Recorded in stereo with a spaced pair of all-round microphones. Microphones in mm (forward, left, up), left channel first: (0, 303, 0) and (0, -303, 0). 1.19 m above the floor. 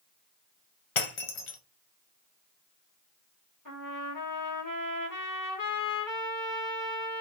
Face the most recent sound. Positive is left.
turn(degrees=30)  # may be behind; listen again after turning